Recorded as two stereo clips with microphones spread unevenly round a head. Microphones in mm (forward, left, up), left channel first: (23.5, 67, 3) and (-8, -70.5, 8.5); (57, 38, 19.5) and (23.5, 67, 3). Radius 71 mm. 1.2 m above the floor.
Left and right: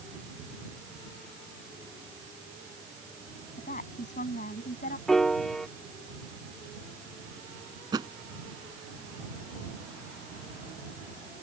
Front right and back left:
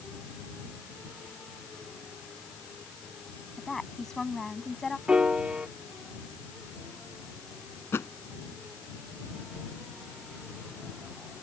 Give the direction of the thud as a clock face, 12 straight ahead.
1 o'clock.